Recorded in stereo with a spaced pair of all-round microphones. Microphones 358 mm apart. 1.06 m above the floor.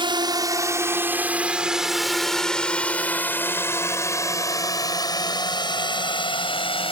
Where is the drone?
15° right (ahead or behind); by 6.9 s 15° left (ahead or behind).